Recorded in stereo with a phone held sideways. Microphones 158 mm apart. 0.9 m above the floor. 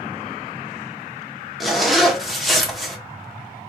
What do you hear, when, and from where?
1.6 s a zipper: centre (ahead or behind), 0.9 m